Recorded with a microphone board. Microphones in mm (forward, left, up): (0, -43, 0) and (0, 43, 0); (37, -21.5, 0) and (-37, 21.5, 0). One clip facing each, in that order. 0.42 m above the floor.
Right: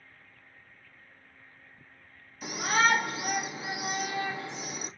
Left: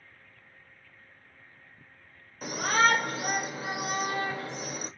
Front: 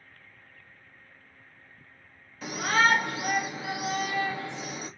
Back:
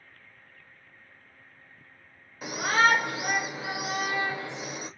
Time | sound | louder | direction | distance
2.4 | a shout | left 1 dB, back 1 dB | 85° left | 1.7 m